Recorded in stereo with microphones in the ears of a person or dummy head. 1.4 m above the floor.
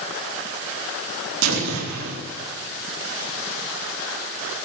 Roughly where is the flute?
I don't hear a flute.